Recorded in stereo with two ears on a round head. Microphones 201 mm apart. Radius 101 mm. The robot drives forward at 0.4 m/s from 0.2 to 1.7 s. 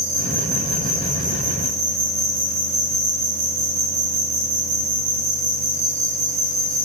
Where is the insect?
70° right (ahead or behind), 1.7 m; by 6.8 s 65° right (ahead or behind), 1.7 m.